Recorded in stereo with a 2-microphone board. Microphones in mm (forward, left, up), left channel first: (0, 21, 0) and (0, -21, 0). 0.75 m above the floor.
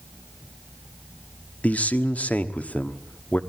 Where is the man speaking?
40° left (ahead or behind), 1.2 m.